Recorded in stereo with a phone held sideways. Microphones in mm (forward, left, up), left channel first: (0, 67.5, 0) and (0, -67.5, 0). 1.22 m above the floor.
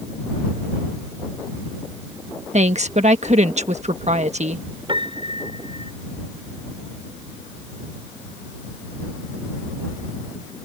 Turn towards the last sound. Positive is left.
turn(degrees=-40)  # may be behind; listen again after turning